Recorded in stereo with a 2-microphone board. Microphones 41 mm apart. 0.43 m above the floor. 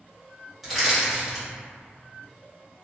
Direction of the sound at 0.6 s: Centre (ahead or behind).